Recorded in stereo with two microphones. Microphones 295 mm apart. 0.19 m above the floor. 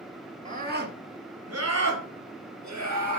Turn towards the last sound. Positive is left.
turn(degrees=-75)  # may be behind; listen again after turning